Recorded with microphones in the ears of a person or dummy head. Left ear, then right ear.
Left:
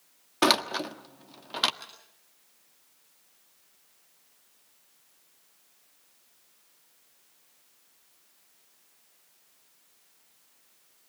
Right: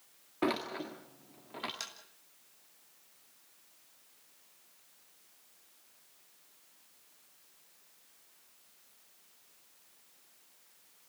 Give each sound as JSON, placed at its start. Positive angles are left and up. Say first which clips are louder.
{"t": 0.4, "sound": "a door slam", "louder": "left 10 dB", "side_deg": 60, "distance_m": 1.5}
{"t": 1.8, "sound": "tapping", "louder": "right 3 dB", "side_deg": -75, "distance_m": 7.0}